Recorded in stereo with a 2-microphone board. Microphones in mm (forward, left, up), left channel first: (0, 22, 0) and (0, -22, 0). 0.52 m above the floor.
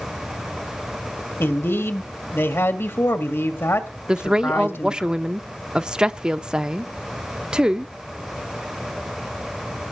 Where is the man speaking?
70° left (ahead or behind), 2 m.